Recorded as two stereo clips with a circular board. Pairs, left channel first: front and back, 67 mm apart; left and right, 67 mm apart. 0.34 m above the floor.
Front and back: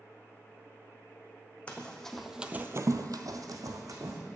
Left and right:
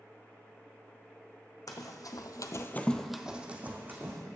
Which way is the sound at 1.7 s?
70° left.